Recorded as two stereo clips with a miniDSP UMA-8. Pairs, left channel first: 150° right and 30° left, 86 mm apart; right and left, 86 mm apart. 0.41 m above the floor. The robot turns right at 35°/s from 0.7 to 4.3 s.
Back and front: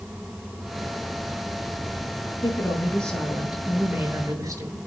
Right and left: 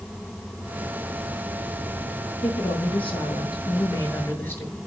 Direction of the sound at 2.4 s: 90° right.